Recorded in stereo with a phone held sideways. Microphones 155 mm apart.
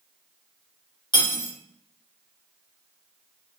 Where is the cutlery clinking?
30° left (ahead or behind), 1.4 m.